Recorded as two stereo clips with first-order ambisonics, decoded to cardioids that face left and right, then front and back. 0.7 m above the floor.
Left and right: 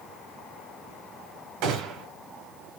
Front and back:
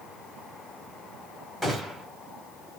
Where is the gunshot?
80° right, 1.1 m.